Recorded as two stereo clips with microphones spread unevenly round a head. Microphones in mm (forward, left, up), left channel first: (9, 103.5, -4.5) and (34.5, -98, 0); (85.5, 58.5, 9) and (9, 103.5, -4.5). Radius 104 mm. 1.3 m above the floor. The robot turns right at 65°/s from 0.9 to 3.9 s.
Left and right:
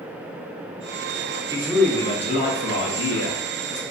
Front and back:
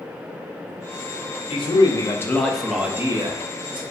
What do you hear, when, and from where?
1.5 s a man speaking: 10° right, 0.5 m; by 3.8 s 140° left, 0.5 m